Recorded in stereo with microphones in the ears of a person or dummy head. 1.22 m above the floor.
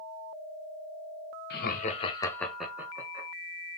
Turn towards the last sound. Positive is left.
turn(degrees=-25)  # may be behind; listen again after turning